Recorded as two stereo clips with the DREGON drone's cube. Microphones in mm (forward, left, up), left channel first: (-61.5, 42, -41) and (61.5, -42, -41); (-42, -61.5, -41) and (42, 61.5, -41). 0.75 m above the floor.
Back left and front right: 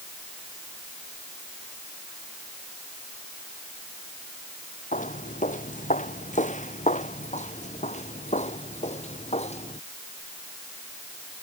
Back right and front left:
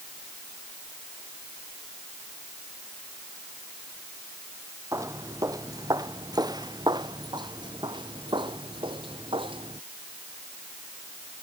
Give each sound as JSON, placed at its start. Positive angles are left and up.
{"t": 4.9, "sound": "footsteps", "azimuth_deg": 125}